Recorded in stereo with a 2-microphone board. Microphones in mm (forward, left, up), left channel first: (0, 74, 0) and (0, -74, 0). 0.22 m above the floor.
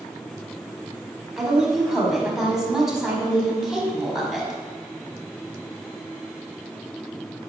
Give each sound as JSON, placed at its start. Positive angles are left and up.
{"t": 1.4, "sound": "a woman speaking", "side_deg": -5, "distance_m": 1.1}